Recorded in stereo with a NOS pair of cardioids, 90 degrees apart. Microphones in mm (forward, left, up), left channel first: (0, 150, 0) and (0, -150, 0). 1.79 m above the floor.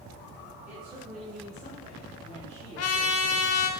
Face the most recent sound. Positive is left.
turn(degrees=55)